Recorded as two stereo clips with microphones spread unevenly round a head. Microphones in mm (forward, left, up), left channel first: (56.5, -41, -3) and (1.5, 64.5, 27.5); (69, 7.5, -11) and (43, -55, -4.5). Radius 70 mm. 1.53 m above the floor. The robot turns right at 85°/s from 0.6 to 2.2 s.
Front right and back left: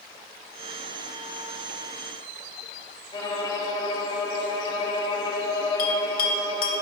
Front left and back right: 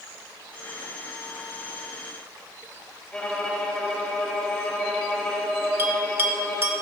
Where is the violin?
10° right, 1.5 m.